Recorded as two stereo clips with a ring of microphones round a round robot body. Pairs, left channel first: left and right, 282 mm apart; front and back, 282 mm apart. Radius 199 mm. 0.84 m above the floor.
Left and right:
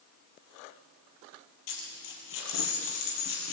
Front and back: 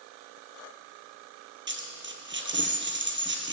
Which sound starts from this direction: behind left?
A dropped coin, at 1.7 s.